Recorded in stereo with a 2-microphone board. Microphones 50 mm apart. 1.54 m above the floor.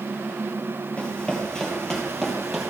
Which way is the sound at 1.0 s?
20° left (ahead or behind).